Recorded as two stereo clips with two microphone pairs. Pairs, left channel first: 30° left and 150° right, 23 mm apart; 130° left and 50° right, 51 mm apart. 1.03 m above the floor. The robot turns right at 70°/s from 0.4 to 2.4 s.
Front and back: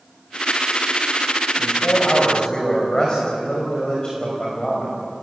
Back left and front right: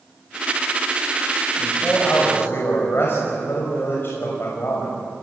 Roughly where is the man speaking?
Ahead left.